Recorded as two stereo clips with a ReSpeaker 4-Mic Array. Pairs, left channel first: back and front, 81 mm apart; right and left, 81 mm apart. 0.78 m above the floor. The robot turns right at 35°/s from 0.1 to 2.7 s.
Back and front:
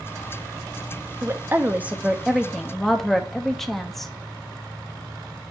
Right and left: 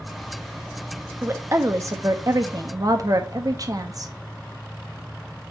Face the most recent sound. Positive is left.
turn(degrees=95)